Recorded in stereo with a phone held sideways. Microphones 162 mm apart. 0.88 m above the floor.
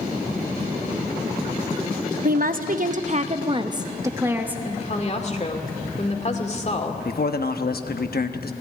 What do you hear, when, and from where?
2.2 s a woman speaking: 60° right (ahead or behind), 1.0 m; by 4.5 s 10° right (ahead or behind), 1.4 m
4.7 s a woman speaking: 45° left (ahead or behind), 2 m
7.0 s a man speaking: 70° left (ahead or behind), 1.1 m